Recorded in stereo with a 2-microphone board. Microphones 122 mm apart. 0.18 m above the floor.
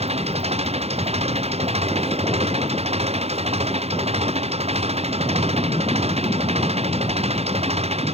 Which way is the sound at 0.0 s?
55° right (ahead or behind).